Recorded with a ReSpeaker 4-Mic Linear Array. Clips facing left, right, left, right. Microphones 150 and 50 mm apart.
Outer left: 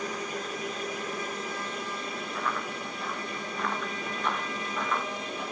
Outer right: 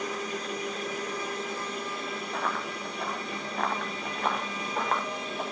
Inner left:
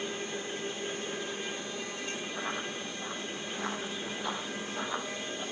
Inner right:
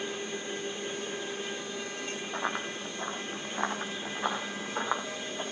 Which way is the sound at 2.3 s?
70° right (ahead or behind).